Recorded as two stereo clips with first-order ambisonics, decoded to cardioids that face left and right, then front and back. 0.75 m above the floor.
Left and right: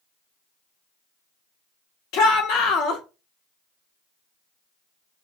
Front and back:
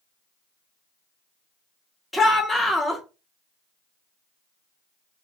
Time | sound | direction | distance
2.1 | a shout | 85° left | 0.8 m